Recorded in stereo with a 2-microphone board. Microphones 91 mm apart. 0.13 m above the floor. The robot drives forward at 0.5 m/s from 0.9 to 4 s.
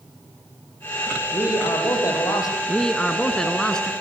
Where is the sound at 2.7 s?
10° left (ahead or behind), 1.8 m.